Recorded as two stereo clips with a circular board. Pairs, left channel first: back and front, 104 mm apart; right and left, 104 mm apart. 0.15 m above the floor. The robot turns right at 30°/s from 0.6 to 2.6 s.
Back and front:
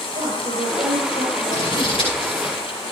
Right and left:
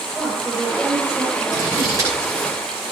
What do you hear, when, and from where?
0.1 s a woman speaking: 5° right, 5.5 m; by 2.2 s 40° left, 5.5 m
1.5 s scissors: 135° left, 9.5 m; by 2.5 s 165° left, 9.5 m